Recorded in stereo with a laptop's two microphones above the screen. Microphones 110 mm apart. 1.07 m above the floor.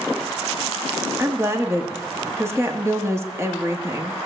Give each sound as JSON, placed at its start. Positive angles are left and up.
{"t": 1.2, "sound": "a woman speaking", "side_deg": -25, "distance_m": 1.8}